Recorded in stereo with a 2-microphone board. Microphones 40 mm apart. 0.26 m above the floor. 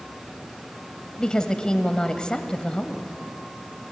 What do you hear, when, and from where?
1.2 s a woman speaking: 25° left (ahead or behind), 1.0 m